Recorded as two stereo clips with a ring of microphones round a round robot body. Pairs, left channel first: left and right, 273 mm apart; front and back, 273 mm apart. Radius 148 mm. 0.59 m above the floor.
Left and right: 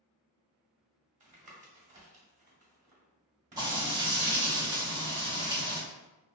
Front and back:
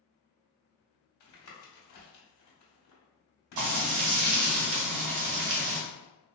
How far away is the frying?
About 0.7 m.